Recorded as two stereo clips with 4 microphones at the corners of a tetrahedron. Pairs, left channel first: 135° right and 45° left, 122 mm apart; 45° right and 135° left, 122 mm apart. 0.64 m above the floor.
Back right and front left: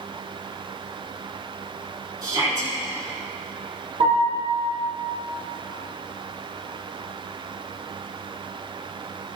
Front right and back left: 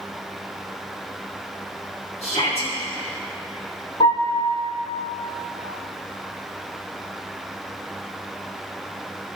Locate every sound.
2.2 s a shout: 15° right, 5.5 m
4.0 s a piano: 5° left, 6 m